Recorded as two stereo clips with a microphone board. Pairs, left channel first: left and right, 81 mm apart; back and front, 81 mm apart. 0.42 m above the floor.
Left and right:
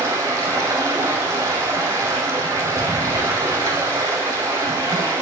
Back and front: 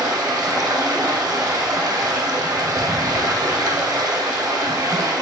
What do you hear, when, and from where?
0.0 s running water: 35° right, 2 m